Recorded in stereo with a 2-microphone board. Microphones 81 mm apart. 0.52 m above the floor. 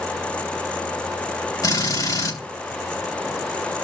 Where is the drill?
55° left (ahead or behind), 3 m.